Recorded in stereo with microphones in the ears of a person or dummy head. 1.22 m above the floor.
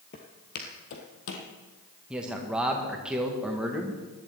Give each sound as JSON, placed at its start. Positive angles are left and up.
{"t": 0.1, "sound": "footsteps", "side_deg": 25, "distance_m": 1.3}
{"t": 2.1, "sound": "a man speaking", "side_deg": -10, "distance_m": 1.4}